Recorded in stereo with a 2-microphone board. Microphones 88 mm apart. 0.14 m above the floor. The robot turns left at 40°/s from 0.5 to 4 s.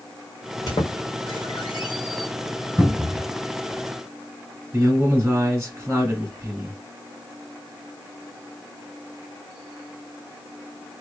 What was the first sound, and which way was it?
A squeak, 50° left (ahead or behind).